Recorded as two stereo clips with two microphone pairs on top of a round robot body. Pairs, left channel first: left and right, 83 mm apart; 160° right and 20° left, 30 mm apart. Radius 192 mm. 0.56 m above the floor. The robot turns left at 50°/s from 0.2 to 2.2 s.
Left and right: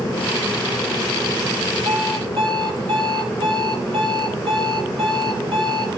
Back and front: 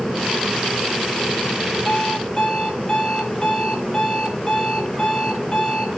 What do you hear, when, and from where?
1.9 s an alarm clock: 75° right, 9.5 m; by 6.0 s 95° right, 9.5 m